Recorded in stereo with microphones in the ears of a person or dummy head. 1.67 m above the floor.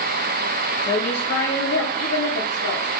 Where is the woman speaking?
45° left (ahead or behind), 1.0 m; by 2.9 s 85° left, 2 m.